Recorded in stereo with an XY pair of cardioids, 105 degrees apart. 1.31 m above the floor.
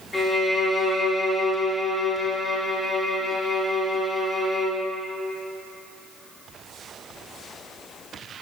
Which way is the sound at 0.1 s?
25° left.